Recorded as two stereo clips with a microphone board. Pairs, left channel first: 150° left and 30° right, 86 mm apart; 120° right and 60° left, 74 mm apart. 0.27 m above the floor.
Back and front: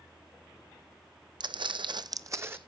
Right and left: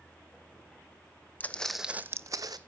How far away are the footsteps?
About 0.8 m.